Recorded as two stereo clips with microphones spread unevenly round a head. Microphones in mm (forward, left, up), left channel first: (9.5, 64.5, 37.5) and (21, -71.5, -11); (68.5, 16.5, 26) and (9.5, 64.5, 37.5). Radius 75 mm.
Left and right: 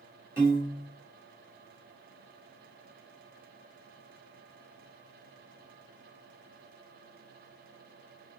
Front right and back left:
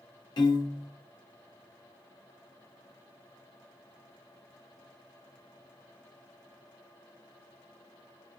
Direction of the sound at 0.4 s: 20° right.